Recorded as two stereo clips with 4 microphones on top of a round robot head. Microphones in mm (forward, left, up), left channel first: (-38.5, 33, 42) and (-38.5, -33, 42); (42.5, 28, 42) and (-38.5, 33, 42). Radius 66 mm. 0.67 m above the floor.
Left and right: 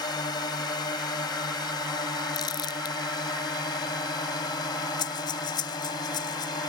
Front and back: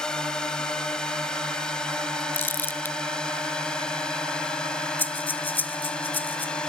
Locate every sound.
0.0 s a drone: 75° left
2.3 s crumpling: 60° left
5.0 s breathing: 65° left